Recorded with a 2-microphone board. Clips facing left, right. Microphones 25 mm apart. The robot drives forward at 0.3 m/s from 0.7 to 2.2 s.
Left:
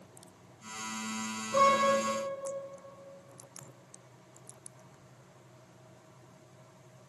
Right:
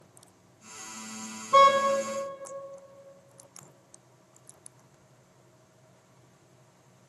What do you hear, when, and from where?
1.5 s a car horn: 75° right (ahead or behind), 3.5 m